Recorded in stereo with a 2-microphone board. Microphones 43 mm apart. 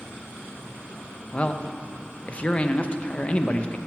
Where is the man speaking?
30° left (ahead or behind), 0.6 m.